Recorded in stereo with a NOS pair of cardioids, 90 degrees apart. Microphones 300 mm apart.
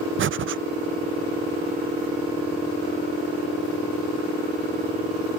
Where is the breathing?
40° right.